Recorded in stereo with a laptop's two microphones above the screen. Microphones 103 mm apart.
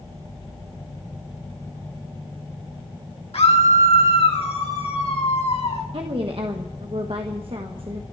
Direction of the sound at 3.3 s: 75° left (ahead or behind).